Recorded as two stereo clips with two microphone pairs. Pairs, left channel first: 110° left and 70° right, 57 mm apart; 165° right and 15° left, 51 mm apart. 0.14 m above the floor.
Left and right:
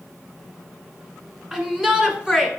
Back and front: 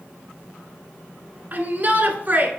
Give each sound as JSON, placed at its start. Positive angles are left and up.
{"t": 1.5, "sound": "a shout", "azimuth_deg": 5, "distance_m": 1.3}